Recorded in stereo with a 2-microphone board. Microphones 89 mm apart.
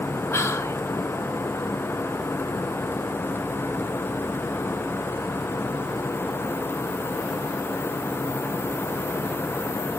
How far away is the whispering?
About 1.0 m.